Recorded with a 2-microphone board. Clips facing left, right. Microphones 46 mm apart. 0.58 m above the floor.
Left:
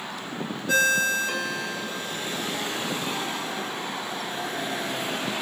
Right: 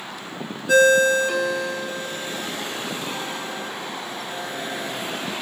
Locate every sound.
0.7 s a ringtone: 10° right (ahead or behind), 1.5 m